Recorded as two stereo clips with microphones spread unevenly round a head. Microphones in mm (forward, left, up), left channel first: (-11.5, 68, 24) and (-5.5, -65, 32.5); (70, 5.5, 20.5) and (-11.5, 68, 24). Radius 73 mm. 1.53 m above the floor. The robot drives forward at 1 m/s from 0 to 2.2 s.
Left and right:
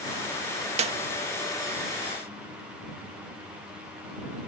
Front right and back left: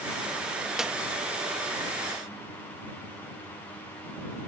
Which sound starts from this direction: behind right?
A clap, at 0.8 s.